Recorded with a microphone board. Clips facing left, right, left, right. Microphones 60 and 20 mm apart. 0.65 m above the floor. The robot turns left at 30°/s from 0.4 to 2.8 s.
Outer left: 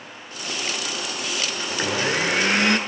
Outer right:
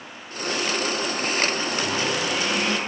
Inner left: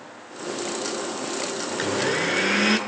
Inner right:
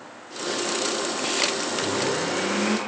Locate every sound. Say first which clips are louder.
1.7 s a blender: outer left 1 dB, inner left 1 dB; 145° left, 7.5 m; by 2.8 s 110° left, 7.5 m